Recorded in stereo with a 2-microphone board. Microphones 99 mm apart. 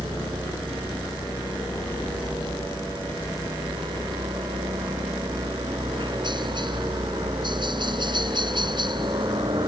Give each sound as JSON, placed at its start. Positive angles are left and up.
{"t": 0.0, "sound": "a helicopter", "side_deg": -50}